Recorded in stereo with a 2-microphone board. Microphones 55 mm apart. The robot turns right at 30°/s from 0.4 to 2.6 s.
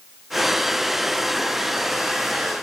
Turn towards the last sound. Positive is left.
No sound to turn to.